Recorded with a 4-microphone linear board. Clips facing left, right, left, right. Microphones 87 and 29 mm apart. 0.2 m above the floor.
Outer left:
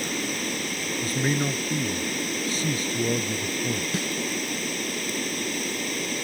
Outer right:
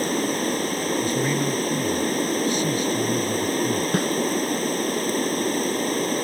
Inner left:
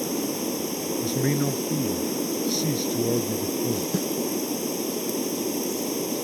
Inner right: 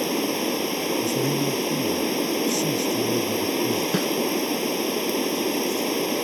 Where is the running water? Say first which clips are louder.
Outer right 7 dB, inner right 3 dB; 40° right (ahead or behind).